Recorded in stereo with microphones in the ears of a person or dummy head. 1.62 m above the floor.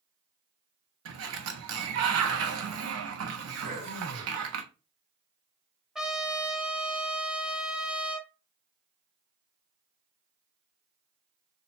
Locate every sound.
1.1 s a sliding door: 80° right, 0.8 m
3.6 s throat clearing: 50° right (ahead or behind), 2.5 m
6.0 s a trumpet: centre (ahead or behind), 0.6 m